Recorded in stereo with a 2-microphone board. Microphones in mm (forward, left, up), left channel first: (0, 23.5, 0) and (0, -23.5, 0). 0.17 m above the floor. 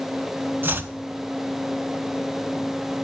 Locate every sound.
0.6 s chopping: 50° right (ahead or behind), 0.8 m